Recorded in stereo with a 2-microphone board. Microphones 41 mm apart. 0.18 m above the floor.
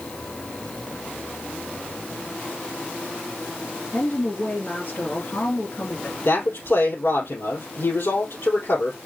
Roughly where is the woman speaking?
Left.